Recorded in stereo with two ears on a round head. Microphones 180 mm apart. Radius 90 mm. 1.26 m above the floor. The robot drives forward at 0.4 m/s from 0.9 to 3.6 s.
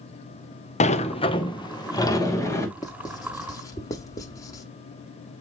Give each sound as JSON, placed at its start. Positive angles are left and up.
{"t": 0.8, "sound": "a sliding door", "side_deg": 35, "distance_m": 0.5}
{"t": 2.8, "sound": "writing", "side_deg": 20, "distance_m": 0.8}